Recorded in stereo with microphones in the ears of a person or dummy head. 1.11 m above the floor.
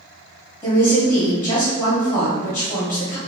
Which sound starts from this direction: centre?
A woman speaking, at 0.6 s.